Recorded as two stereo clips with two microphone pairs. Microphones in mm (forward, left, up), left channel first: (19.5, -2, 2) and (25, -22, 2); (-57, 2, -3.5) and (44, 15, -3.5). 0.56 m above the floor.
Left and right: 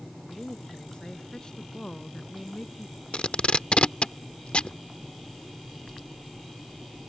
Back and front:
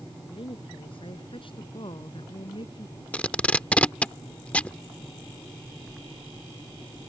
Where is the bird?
I don't hear a bird.